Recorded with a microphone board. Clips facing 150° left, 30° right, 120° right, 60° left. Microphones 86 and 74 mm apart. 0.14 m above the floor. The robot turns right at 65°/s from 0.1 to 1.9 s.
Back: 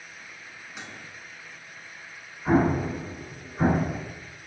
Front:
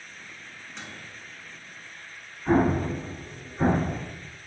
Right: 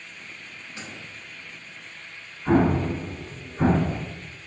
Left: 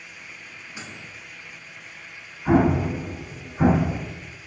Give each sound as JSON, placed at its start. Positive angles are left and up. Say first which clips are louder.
{"t": 0.8, "sound": "a microwave", "louder": "even, even", "azimuth_deg": 80, "distance_m": 0.8}
{"t": 2.5, "sound": "an explosion", "louder": "even, left 1 dB", "azimuth_deg": 120, "distance_m": 1.8}